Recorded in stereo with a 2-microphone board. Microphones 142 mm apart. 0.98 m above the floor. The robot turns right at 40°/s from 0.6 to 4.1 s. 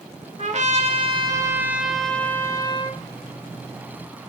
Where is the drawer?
I don't hear a drawer.